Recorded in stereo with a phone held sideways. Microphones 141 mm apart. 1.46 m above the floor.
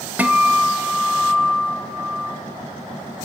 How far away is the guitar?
About 0.6 m.